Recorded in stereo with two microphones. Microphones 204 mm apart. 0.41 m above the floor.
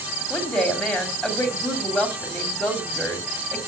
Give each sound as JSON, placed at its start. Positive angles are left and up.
{"t": 0.3, "sound": "a woman speaking", "side_deg": 5, "distance_m": 2.5}